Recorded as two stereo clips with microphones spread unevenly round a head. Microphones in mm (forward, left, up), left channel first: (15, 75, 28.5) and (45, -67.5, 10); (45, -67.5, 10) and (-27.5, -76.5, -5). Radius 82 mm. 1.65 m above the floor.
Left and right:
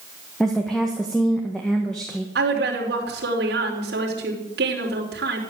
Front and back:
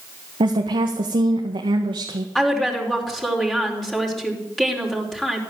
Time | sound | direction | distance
0.4 | a woman speaking | 170° right | 1.6 m
2.4 | a woman speaking | 75° right | 4.5 m